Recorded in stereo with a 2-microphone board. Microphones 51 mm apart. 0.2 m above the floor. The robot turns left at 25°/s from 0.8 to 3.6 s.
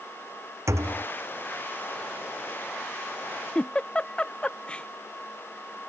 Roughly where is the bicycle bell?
No bicycle bell in this recording.